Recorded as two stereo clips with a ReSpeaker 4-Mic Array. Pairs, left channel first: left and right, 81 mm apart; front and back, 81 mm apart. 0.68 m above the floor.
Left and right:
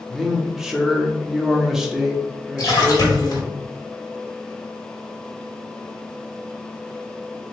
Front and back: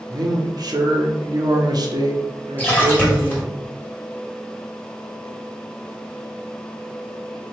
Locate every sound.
0.1 s a man speaking: 175° right, 0.8 m
2.6 s a splash: 65° left, 1.6 m